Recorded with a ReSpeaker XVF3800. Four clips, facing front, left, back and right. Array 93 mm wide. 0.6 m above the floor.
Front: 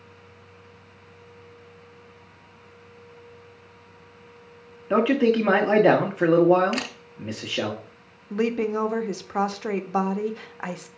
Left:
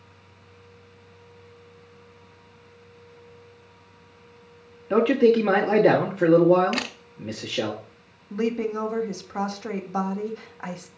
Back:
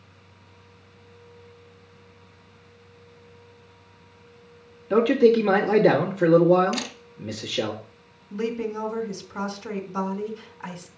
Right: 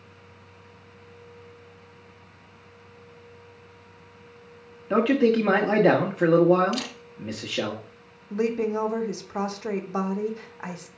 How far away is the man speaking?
About 1.2 m.